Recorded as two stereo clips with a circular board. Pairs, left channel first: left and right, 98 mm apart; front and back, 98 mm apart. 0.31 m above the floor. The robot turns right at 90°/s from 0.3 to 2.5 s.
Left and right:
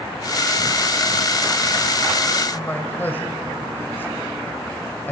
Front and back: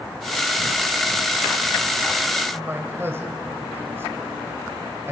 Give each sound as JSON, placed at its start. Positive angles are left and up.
{"t": 2.5, "sound": "a man speaking", "azimuth_deg": 140, "distance_m": 1.7}